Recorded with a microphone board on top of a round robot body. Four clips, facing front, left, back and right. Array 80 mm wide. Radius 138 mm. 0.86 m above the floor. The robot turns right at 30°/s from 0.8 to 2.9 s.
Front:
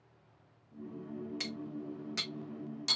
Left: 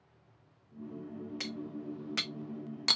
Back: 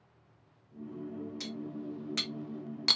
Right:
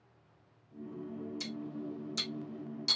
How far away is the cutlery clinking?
About 0.6 m.